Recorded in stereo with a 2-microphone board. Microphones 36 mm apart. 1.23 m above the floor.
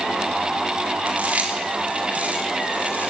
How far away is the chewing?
About 4 m.